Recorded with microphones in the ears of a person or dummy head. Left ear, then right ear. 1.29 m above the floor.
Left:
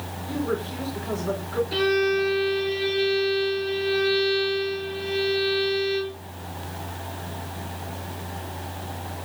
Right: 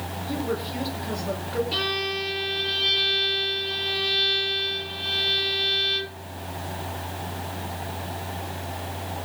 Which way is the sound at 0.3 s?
40° left (ahead or behind).